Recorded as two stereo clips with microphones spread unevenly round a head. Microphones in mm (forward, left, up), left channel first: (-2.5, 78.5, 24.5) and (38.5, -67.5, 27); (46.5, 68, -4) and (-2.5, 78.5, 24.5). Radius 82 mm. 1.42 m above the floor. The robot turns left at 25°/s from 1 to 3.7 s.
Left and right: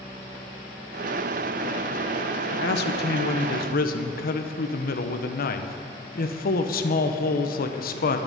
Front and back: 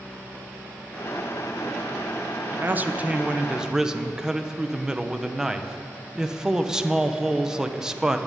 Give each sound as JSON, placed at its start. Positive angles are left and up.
{"t": 2.5, "sound": "a man speaking", "azimuth_deg": 115, "distance_m": 1.1}